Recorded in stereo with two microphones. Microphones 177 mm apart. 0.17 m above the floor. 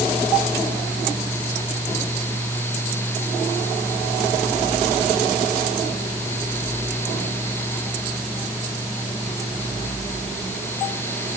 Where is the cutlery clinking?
I don't hear cutlery clinking.